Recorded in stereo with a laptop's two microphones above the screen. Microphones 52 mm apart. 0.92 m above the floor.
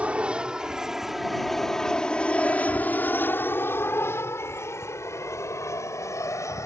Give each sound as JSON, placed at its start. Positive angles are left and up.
{"t": 0.0, "sound": "an aircraft", "side_deg": -25}